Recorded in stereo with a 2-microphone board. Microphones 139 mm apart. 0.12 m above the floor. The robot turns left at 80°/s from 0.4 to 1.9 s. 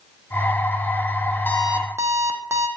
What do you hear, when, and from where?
1.5 s an alarm clock: 15° left, 2.5 m; by 2.7 s 20° right, 2.5 m